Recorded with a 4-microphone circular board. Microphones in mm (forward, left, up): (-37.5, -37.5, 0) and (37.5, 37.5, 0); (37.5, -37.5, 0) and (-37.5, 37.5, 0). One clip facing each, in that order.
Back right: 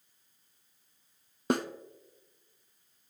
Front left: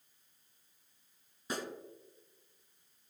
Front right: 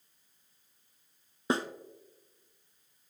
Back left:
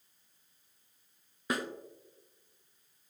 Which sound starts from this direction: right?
A snare drum, at 1.5 s.